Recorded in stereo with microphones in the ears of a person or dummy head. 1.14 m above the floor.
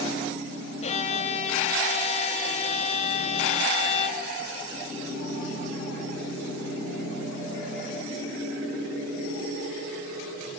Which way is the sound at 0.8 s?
40° left (ahead or behind).